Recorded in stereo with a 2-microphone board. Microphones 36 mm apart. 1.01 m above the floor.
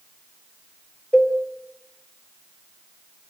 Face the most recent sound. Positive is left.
turn(degrees=20)  # may be behind; listen again after turning